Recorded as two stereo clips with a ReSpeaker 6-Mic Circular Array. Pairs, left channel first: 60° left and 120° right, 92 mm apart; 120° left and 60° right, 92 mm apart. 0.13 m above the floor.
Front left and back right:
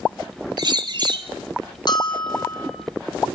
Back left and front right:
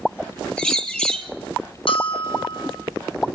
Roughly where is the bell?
Left.